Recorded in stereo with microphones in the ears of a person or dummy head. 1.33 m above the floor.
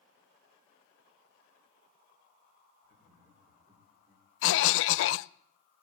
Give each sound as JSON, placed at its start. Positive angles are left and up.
{"t": 2.8, "sound": "laughter", "side_deg": -40, "distance_m": 4.5}
{"t": 4.4, "sound": "a cough", "side_deg": 75, "distance_m": 0.6}